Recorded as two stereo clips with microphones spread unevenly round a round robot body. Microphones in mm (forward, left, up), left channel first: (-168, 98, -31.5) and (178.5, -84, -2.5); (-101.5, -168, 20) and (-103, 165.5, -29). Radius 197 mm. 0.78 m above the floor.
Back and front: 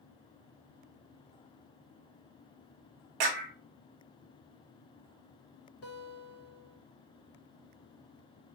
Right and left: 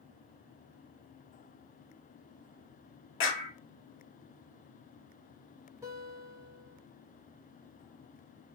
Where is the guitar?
155° left, 1.1 m.